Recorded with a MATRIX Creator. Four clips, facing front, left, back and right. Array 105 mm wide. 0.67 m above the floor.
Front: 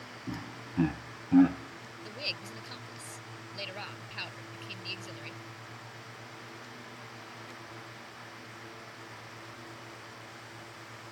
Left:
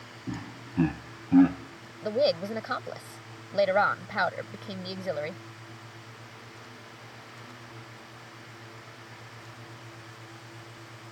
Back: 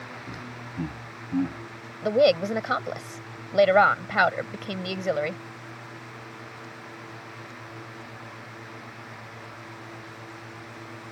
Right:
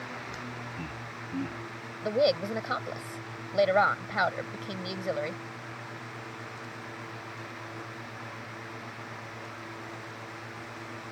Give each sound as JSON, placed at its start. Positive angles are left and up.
{"t": 0.3, "sound": "laughter", "azimuth_deg": 65}
{"t": 2.0, "sound": "a woman speaking", "azimuth_deg": 180}